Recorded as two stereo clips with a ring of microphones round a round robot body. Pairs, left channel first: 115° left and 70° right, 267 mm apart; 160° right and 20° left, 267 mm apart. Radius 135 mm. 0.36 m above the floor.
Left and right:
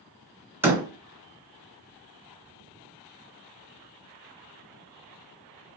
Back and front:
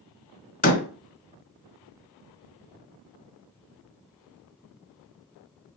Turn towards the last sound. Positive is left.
turn(degrees=-140)